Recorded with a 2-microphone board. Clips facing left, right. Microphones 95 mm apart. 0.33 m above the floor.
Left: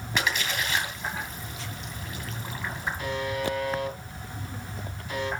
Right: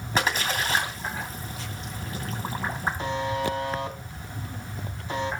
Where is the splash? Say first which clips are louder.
Right 3 dB; 35° right (ahead or behind), 2.5 m.